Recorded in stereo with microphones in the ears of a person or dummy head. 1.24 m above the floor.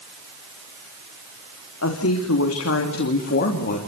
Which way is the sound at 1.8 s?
75° left (ahead or behind).